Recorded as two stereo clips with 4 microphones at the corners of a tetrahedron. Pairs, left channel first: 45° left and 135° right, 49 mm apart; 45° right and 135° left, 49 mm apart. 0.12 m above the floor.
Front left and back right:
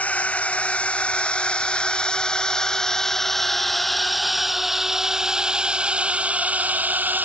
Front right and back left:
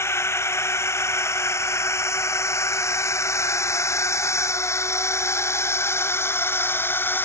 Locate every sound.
0.0 s a drone: 20° right; by 7.3 s 90° right